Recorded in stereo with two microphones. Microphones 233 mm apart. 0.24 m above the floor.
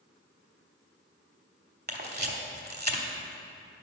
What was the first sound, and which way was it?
A camera shutter, 45° right (ahead or behind).